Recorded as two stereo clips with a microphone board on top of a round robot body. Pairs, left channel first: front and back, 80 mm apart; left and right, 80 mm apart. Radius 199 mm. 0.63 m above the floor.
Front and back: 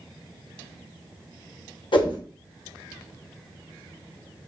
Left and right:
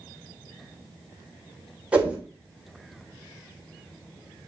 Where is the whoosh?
15° right, 2.5 m.